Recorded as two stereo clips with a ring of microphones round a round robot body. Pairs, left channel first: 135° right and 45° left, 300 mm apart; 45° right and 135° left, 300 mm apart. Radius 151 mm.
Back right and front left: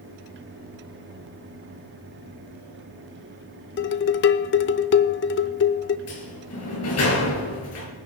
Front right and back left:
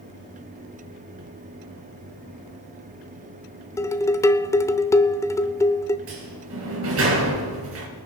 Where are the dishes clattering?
120° right, 0.8 m.